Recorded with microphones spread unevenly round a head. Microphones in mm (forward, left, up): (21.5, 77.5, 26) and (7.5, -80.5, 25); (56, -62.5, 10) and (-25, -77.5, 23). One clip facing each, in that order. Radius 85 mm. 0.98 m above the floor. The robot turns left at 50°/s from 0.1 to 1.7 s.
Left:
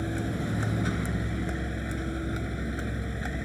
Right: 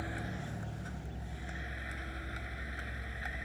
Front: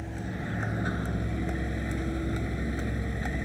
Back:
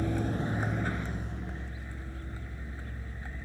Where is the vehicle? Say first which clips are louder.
Left 11 dB, back 5 dB; 130° left; by 3.5 s 50° left.